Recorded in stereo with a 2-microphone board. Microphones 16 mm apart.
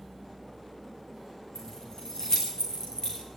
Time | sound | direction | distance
1.6 | keys jangling | 50° left (ahead or behind) | 8 m